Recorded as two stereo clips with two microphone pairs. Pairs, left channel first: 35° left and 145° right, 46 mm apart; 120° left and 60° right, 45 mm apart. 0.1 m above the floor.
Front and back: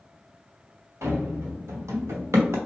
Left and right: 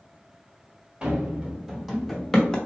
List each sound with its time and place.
1.0 s running footsteps: 130° right, 1.2 m; by 2.6 s 170° right, 0.8 m